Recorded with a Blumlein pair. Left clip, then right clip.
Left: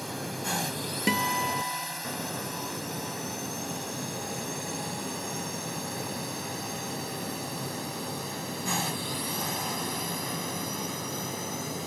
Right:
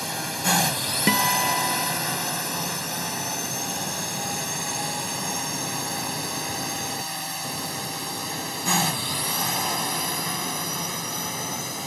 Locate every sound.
0.0 s a drone: 65° right; by 11.9 s 70° right
1.1 s a guitar: 15° right